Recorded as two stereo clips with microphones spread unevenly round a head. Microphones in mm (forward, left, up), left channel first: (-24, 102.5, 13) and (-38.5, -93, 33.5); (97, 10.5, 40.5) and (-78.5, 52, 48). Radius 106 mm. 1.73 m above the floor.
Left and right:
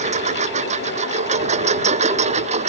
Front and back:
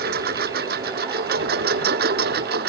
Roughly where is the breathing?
I don't hear breathing.